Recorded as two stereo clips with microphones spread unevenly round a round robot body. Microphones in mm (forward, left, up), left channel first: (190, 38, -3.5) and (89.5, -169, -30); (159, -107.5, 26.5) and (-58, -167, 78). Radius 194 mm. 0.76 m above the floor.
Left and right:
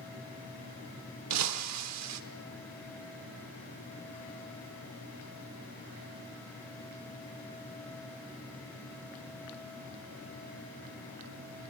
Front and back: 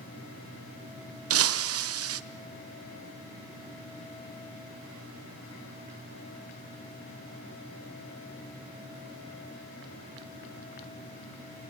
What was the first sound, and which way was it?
Breaking glass, 145° right.